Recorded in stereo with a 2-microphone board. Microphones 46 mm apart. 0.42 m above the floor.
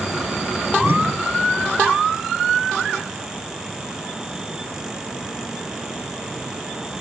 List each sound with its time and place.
0.8 s a whoosh: 55° right (ahead or behind)